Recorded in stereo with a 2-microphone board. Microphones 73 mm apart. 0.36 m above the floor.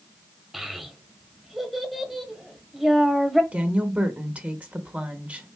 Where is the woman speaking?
15° right (ahead or behind), 0.9 m.